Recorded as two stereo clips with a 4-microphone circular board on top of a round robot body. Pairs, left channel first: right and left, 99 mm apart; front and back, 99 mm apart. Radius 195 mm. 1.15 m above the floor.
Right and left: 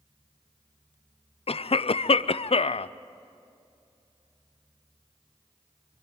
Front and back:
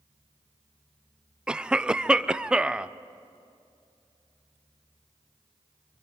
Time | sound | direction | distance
1.5 | a cough | 100° right | 0.6 m